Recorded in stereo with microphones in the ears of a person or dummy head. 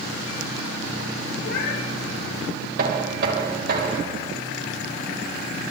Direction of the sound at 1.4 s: 50° left (ahead or behind).